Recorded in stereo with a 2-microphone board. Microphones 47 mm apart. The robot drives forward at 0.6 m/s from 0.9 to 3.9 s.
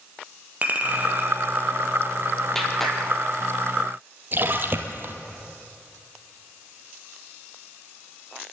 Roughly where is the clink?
Right.